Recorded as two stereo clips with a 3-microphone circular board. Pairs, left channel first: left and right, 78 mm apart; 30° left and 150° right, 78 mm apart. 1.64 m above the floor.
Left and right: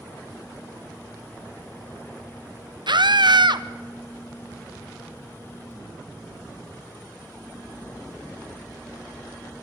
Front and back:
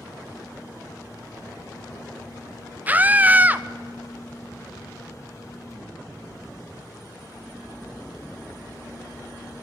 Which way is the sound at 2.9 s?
80° right.